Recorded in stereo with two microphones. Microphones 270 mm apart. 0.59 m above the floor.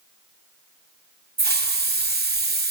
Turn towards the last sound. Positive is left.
turn(degrees=-35)  # may be behind; listen again after turning